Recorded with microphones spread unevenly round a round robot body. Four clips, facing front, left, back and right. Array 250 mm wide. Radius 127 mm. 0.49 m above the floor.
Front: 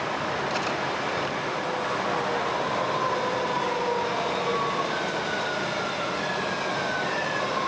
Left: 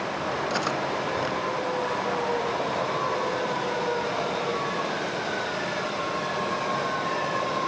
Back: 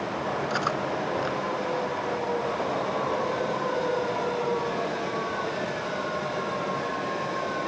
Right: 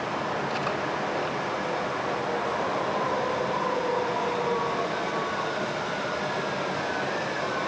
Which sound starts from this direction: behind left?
Cutlery clinking, at 0.5 s.